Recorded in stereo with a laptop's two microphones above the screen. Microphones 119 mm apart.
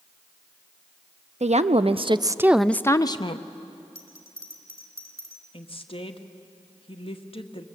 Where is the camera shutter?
No camera shutter in this recording.